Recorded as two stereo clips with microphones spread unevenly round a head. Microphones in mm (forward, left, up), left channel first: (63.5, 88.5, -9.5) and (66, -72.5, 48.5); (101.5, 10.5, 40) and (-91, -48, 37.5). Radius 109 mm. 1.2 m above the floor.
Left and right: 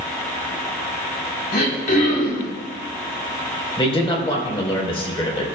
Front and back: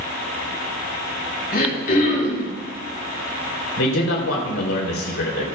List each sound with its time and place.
1.5 s throat clearing: 60° left, 4.5 m
3.8 s a man speaking: 30° left, 4.5 m